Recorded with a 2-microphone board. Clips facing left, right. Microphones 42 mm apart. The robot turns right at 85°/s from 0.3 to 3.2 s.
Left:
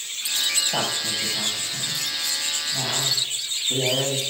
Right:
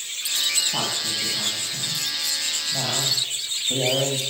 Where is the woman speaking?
65° left (ahead or behind), 6 m; by 4.2 s 35° right (ahead or behind), 6 m.